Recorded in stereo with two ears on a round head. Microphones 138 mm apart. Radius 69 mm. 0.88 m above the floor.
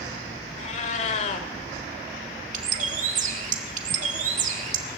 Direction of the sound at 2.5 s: 50° right (ahead or behind).